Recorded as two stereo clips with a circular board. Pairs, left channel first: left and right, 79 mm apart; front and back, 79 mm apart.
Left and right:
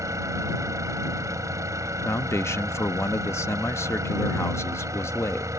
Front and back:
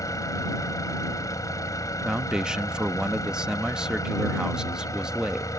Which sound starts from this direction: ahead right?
An engine running, at 0.0 s.